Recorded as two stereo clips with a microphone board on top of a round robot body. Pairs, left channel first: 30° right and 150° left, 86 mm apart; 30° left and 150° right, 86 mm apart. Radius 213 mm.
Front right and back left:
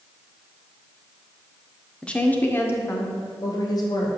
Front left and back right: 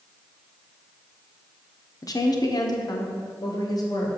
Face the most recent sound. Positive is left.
turn(degrees=-5)